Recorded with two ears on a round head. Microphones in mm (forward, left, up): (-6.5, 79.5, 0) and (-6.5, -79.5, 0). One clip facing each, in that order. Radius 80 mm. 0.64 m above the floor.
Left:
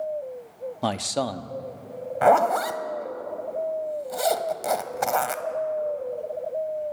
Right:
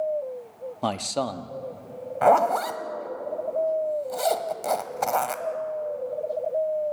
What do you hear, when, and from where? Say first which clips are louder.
0.8 s a man speaking: left 1 dB; 5° left (ahead or behind), 0.7 m
2.2 s a zipper: left 1 dB; 5° left (ahead or behind), 0.8 m